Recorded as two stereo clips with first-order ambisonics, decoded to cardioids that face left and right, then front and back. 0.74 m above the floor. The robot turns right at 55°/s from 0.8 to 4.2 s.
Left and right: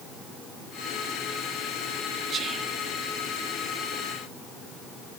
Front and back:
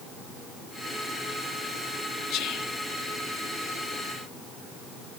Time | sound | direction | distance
2.3 | whispering | 35° right | 0.9 m